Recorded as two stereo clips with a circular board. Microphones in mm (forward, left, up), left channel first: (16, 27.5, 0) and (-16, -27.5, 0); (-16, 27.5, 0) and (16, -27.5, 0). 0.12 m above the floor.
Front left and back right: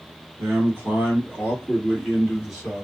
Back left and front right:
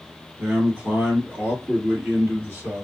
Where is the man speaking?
120° right, 1.7 m; by 2.8 s 35° right, 1.9 m.